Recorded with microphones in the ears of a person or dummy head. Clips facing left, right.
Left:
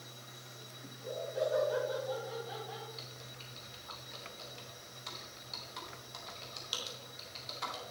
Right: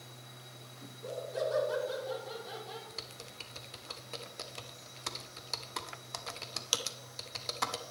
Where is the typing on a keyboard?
70° right (ahead or behind), 0.8 m.